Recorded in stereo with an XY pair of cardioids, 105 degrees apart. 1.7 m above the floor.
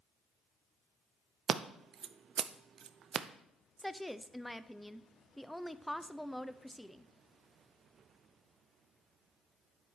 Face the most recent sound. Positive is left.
turn(degrees=5)